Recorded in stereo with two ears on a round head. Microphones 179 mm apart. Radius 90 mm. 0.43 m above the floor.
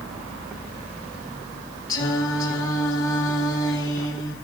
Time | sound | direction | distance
1.9 | singing | 20° left (ahead or behind) | 2 m